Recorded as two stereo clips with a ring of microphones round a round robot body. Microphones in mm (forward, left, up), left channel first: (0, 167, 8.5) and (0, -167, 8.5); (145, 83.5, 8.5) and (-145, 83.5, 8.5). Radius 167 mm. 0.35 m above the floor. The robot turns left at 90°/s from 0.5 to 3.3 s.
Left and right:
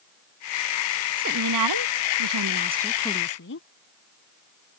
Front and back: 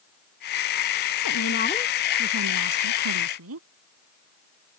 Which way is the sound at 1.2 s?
25° right.